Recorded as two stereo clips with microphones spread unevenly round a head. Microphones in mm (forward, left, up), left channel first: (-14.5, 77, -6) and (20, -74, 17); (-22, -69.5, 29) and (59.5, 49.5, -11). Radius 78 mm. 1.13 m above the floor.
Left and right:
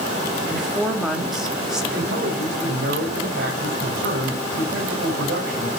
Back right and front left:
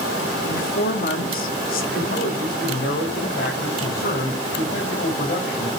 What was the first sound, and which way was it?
A woman speaking, 165° right.